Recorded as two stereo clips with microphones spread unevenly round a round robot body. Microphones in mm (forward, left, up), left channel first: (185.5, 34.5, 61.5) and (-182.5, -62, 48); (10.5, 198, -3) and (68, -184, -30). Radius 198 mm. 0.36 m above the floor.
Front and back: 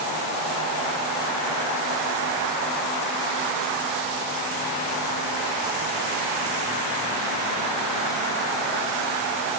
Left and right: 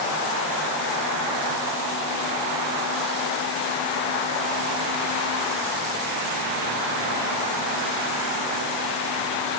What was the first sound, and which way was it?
Only background noise.